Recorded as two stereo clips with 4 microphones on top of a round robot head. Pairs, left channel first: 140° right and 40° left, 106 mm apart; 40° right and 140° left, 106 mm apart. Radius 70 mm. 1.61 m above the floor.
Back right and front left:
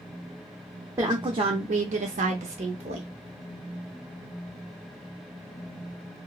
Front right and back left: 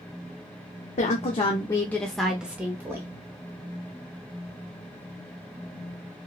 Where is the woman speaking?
20° right, 0.6 m; by 3.1 s 75° left, 1.0 m.